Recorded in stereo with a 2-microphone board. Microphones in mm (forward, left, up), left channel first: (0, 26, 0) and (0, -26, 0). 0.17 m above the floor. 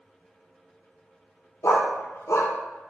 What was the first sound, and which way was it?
A dog barking, 70° left (ahead or behind).